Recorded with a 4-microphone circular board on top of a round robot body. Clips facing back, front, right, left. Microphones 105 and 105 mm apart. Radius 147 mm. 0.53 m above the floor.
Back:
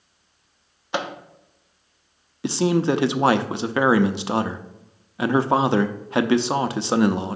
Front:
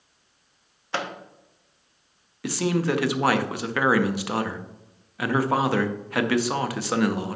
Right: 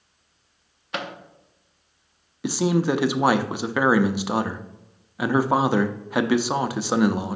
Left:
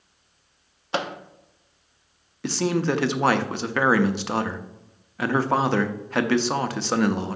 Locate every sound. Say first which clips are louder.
0.9 s a microwave: back 3 dB, left 4 dB; 120° left, 0.8 m
2.4 s a man speaking: back 4 dB, right 2 dB; 155° right, 0.7 m